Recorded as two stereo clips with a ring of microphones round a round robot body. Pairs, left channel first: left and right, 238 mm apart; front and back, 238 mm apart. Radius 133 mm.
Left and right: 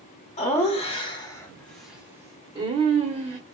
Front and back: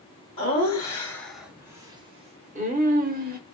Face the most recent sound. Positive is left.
turn(degrees=-145)